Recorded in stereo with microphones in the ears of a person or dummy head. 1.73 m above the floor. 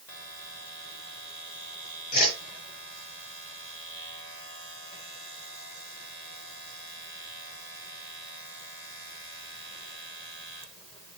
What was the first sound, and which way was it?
A whoosh, 50° left (ahead or behind).